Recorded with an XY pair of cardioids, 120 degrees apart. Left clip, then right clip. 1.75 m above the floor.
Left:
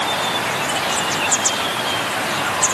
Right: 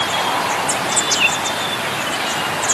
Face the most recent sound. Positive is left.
No sound to turn to.